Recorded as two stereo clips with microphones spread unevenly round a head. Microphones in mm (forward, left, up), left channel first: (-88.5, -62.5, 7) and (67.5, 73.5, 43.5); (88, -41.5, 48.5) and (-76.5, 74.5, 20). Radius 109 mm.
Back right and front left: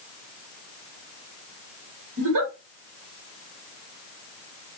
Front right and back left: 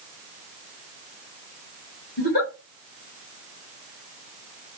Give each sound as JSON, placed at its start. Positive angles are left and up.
{"t": 2.2, "sound": "a giggle", "azimuth_deg": 10, "distance_m": 1.4}